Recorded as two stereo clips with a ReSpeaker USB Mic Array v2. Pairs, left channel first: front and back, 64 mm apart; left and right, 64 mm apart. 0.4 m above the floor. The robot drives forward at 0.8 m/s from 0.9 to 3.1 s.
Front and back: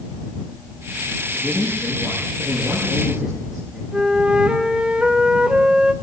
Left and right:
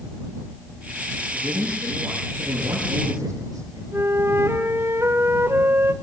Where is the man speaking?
90° right, 8 m; by 3.8 s 100° right, 8 m.